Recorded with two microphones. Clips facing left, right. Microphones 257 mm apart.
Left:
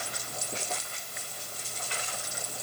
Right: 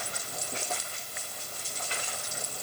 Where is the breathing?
No breathing in this recording.